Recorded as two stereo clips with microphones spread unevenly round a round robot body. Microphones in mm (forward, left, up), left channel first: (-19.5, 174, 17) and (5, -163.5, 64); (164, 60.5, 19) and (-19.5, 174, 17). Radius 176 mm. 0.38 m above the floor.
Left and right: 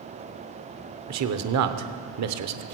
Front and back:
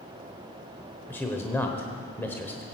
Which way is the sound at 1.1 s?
110° right.